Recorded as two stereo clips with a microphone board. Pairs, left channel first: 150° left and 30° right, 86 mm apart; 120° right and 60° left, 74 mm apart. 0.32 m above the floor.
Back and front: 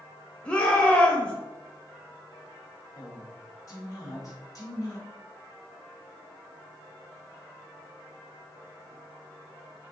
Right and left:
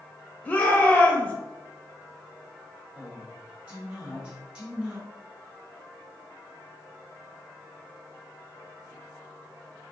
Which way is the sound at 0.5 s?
155° right.